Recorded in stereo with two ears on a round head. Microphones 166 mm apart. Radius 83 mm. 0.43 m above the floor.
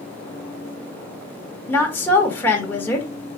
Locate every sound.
1.7 s a woman speaking: 10° left (ahead or behind), 1.4 m